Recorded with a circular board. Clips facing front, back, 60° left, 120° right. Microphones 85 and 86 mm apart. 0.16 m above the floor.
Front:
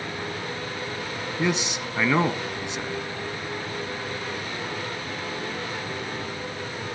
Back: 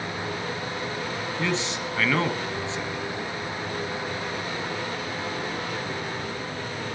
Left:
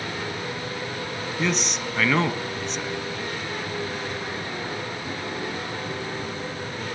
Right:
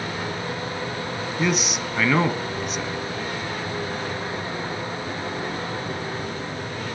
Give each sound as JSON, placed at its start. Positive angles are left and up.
{"t": 1.4, "sound": "a man speaking", "azimuth_deg": -45, "distance_m": 1.4}